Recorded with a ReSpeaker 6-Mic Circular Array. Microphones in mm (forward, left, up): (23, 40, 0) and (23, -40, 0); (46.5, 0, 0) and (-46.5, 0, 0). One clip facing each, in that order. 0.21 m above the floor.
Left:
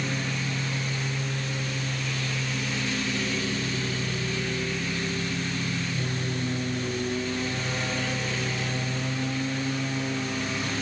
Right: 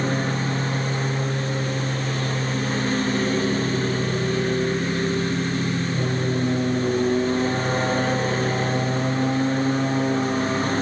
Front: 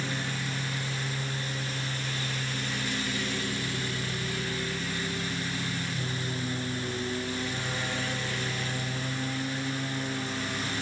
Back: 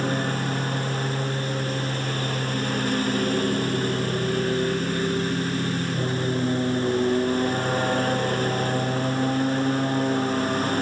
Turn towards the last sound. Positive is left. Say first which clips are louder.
# right 7 dB, back 9 dB
turn(degrees=-140)